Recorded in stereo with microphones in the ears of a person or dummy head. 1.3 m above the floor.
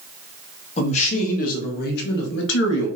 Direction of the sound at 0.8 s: 40° left (ahead or behind).